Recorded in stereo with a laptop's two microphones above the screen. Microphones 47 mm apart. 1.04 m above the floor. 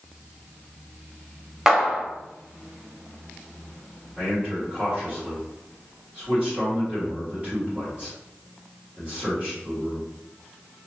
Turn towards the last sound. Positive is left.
turn(degrees=-25)  # may be behind; listen again after turning